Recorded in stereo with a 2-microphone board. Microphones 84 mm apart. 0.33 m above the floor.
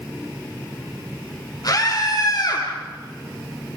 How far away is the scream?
About 7.5 m.